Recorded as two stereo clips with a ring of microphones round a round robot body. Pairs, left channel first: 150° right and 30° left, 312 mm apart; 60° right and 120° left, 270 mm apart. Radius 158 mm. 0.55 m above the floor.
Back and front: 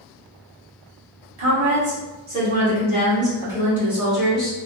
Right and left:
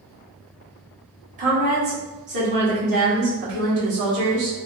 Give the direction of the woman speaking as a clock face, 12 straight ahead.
10 o'clock.